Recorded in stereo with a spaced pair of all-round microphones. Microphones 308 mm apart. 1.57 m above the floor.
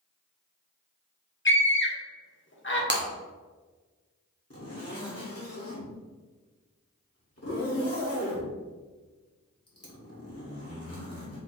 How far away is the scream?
About 1.2 m.